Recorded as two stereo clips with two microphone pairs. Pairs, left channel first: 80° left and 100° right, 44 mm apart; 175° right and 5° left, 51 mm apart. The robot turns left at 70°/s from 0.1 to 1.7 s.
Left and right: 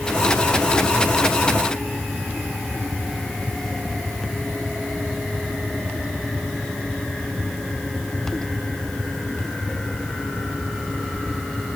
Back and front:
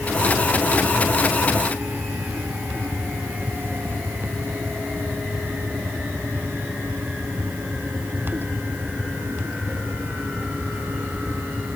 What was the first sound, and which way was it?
Only background noise.